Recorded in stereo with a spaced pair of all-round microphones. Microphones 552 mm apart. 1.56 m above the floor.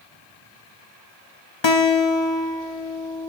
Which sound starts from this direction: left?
A guitar, at 1.6 s.